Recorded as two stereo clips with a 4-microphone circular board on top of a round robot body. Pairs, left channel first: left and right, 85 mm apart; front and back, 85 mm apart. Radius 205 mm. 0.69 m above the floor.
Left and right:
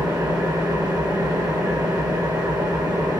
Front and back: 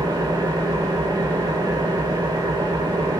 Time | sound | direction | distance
0.0 | an engine running | 135° right | 3 m